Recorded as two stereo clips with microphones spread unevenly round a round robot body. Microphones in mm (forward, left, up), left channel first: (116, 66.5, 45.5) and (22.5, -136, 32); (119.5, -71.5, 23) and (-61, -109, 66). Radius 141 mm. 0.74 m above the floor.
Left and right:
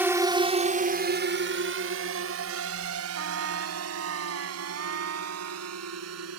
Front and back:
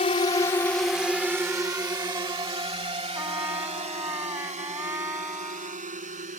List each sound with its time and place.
0.0 s a drone: 35° right; by 6.4 s 125° right
3.1 s a trumpet: 95° right